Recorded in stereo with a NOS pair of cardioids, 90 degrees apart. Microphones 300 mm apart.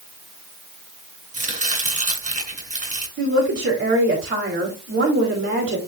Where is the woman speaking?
45° right, 4 m.